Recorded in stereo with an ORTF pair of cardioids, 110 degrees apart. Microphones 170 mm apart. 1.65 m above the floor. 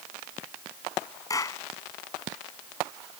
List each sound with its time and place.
1.3 s a clap: 20° left